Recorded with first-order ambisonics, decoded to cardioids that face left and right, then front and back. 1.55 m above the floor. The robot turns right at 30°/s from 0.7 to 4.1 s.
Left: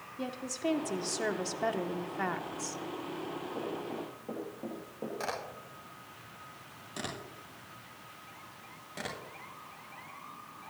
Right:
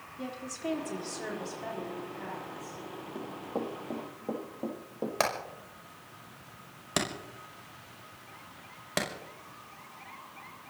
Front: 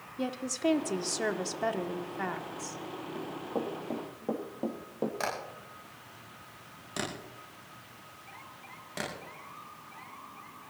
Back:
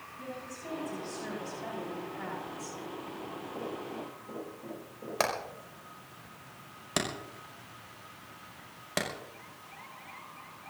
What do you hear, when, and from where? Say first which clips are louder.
0.2 s a woman speaking: left 2 dB, front 11 dB; 15° left, 1.6 m; by 2.8 s 80° left, 1.6 m
3.1 s running footsteps: right 2 dB, front 4 dB; 55° right, 4 m; by 5.1 s 20° right, 3 m
5.2 s hammering: right 9 dB, back 3 dB; 125° right, 5.5 m